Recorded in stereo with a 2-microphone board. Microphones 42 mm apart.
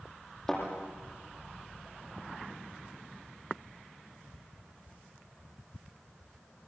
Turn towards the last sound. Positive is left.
turn(degrees=10)  # may be behind; listen again after turning